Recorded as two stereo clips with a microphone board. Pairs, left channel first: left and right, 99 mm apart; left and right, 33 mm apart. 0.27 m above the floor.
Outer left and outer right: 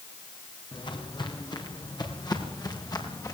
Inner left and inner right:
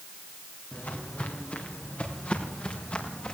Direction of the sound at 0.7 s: 55° left (ahead or behind).